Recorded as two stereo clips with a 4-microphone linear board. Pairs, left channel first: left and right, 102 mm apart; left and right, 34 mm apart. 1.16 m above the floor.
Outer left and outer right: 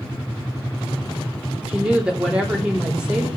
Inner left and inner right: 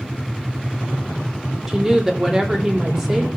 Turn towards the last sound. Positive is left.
turn(degrees=-10)  # may be behind; listen again after turning